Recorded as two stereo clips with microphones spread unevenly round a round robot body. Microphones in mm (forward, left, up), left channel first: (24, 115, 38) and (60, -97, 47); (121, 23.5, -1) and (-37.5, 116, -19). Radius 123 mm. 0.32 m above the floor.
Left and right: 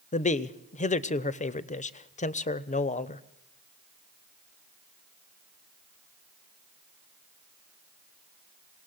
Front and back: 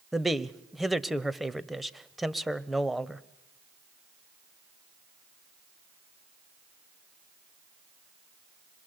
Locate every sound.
0.1 s a man speaking: 65° left, 1.1 m